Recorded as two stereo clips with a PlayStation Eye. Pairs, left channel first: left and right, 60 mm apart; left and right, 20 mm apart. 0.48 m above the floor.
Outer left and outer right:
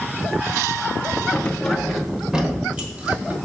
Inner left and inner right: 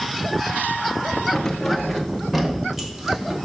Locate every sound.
1.3 s keys jangling: 20° left (ahead or behind), 0.8 m; by 3.4 s 25° right (ahead or behind), 1.7 m